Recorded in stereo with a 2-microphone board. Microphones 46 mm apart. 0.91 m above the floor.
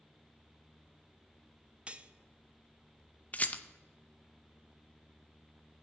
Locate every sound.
1.9 s cutlery clinking: 25° right (ahead or behind), 0.6 m
3.3 s a rattle: 30° left (ahead or behind), 0.6 m